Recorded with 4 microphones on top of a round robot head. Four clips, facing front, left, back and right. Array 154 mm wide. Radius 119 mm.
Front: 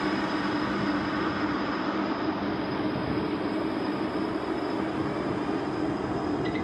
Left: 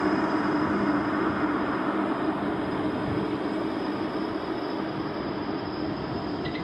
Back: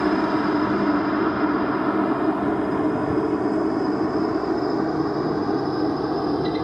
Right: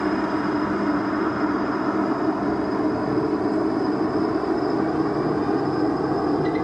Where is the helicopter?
175° right; by 6.6 s 125° right.